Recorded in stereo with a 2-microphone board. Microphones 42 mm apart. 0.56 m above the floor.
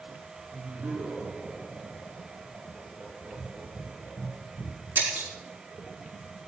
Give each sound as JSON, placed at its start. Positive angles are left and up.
{"t": 0.5, "sound": "laughter", "side_deg": -60, "distance_m": 7.5}
{"t": 3.3, "sound": "breathing", "side_deg": 60, "distance_m": 1.9}
{"t": 5.0, "sound": "breaking glass", "side_deg": -50, "distance_m": 4.0}